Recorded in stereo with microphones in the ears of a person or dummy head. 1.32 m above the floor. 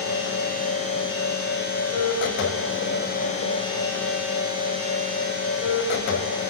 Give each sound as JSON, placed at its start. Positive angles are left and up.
{"t": 0.0, "sound": "a machine running", "side_deg": 60, "distance_m": 6.5}